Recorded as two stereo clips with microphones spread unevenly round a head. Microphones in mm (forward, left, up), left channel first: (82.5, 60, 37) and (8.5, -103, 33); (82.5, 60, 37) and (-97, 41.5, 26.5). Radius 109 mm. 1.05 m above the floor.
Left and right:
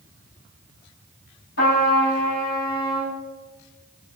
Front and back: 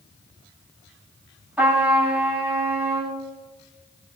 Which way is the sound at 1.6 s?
105° left.